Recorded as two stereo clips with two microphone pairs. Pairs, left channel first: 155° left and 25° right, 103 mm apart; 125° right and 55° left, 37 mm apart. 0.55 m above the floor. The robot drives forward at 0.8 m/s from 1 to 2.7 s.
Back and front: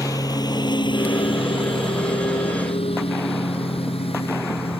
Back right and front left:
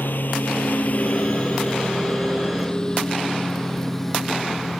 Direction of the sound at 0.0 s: 150° right.